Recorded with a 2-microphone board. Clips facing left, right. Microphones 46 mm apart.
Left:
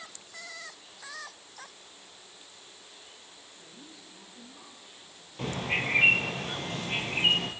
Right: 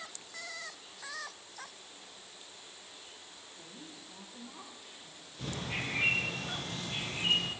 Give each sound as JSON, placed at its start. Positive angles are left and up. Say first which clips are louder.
{"t": 3.6, "sound": "a woman speaking", "louder": "right 1 dB", "side_deg": -70, "distance_m": 7.0}
{"t": 5.4, "sound": "a bird", "louder": "left 7 dB", "side_deg": 50, "distance_m": 2.0}